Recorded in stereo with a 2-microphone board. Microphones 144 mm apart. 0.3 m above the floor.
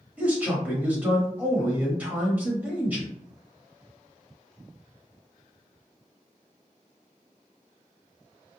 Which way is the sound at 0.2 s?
10° right (ahead or behind).